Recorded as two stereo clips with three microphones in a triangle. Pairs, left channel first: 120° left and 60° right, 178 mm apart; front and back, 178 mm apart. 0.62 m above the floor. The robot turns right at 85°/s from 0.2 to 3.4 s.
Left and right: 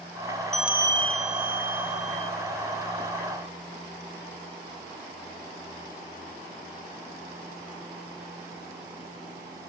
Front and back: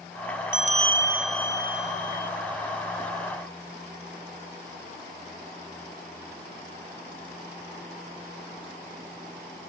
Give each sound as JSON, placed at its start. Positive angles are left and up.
{"t": 0.5, "sound": "a bell", "azimuth_deg": -155, "distance_m": 0.6}